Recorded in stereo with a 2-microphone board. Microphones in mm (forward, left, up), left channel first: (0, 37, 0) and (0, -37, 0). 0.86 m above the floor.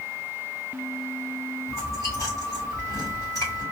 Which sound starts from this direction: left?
Chewing, at 1.7 s.